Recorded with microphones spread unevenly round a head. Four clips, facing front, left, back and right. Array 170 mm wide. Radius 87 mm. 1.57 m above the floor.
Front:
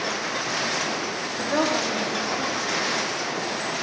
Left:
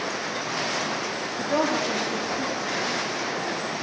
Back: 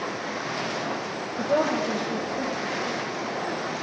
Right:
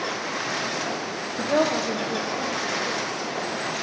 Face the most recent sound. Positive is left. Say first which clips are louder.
# right 2 dB, back 1 dB
turn(degrees=-135)